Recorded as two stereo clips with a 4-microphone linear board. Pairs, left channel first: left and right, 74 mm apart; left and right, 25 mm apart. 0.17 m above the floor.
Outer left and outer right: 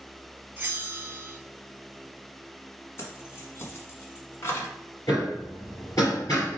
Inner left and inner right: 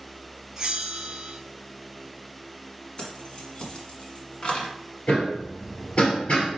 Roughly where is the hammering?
Left.